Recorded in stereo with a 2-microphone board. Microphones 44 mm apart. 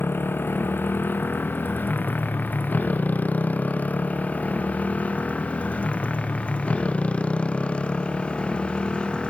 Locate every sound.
0.0 s a motorcycle: 50° left (ahead or behind); by 9.3 s 25° left (ahead or behind)